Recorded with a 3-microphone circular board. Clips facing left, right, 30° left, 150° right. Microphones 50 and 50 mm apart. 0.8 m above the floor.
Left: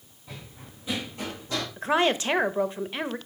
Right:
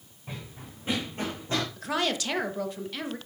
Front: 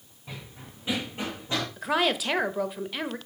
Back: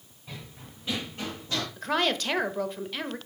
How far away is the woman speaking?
About 0.6 m.